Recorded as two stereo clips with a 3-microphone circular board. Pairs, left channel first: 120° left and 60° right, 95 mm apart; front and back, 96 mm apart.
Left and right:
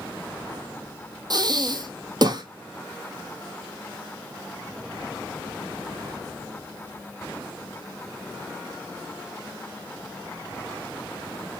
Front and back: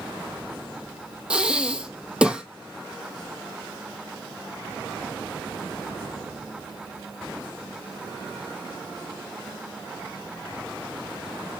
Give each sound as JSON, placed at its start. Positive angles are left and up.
{"t": 1.3, "sound": "breathing", "azimuth_deg": -100, "distance_m": 0.8}